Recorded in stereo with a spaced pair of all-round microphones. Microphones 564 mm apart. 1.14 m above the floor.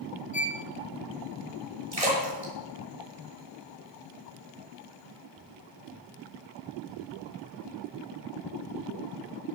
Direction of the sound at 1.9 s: 85° right.